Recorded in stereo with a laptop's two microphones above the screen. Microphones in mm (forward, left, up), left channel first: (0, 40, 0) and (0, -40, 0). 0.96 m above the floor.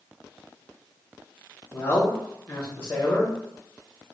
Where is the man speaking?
35° left (ahead or behind), 0.8 m.